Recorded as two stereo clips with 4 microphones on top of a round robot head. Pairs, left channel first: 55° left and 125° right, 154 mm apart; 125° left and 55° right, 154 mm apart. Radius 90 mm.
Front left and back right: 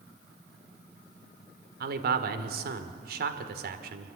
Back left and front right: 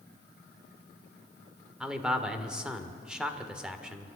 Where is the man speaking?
140° right, 1.8 m.